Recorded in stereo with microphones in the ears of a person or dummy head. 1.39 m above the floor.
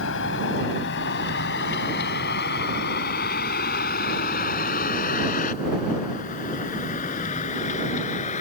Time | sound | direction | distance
0.0 | a vehicle | 65° left (ahead or behind) | ?